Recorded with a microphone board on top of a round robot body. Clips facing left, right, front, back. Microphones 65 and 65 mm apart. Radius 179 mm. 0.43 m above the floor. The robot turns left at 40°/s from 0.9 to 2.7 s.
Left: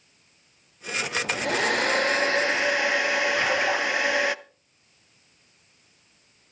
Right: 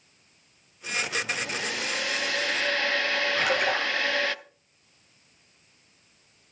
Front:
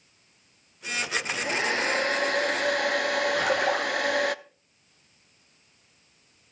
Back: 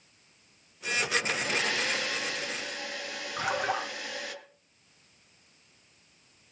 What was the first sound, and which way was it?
A hair dryer, 80° left.